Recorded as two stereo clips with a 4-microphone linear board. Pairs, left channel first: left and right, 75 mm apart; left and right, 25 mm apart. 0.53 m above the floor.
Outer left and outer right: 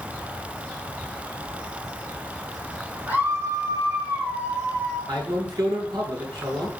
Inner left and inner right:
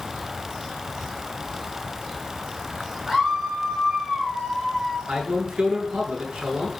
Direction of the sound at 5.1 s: 75° right (ahead or behind).